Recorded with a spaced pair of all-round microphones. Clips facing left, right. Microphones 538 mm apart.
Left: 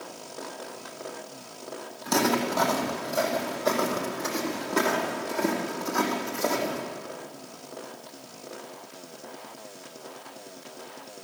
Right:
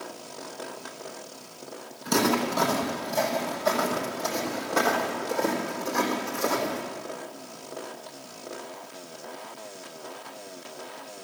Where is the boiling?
No boiling in this recording.